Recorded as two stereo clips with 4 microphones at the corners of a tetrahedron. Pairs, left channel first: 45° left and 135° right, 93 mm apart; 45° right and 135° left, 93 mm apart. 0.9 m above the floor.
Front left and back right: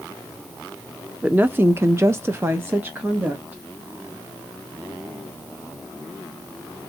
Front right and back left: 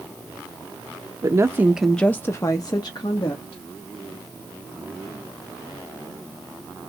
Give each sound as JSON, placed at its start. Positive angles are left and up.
{"t": 1.2, "sound": "a woman speaking", "azimuth_deg": 155, "distance_m": 0.7}